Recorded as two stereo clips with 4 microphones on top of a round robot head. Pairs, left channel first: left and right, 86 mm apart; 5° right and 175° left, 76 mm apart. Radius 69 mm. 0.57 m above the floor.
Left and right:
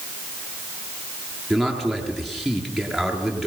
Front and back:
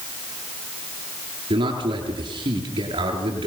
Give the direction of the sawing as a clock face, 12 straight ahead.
No sawing in this recording.